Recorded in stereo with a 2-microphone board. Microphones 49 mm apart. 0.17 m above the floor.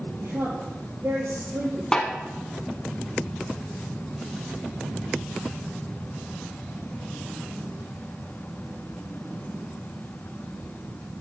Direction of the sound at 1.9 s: 15° left (ahead or behind).